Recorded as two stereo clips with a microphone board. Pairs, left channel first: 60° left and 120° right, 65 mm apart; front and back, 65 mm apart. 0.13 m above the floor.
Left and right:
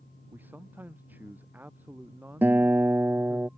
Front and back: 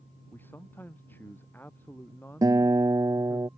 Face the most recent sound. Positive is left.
turn(degrees=-175)